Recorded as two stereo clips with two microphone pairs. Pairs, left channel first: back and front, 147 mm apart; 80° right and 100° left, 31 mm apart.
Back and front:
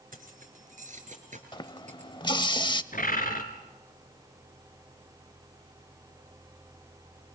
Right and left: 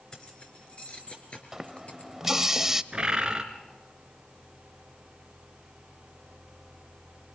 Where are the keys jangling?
15° right, 3 m; by 2.5 s 40° right, 4.5 m.